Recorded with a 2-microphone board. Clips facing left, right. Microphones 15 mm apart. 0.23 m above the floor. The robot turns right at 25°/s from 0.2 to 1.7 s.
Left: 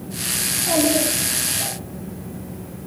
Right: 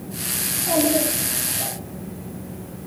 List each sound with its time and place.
0.5 s a child speaking: 150° left, 6.5 m; by 1.8 s straight behind, 6.5 m